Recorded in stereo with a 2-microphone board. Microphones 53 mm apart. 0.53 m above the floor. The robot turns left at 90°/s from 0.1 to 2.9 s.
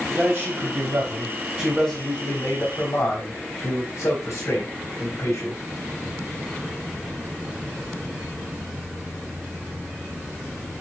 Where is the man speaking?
20° right, 3.5 m; by 5.6 s 90° left, 3.5 m.